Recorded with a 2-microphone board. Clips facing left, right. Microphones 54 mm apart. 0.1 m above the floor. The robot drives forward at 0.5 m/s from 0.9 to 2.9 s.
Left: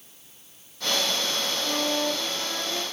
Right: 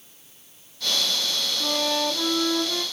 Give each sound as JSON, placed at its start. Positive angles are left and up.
{"t": 1.6, "sound": "a flute", "side_deg": -70, "distance_m": 0.8}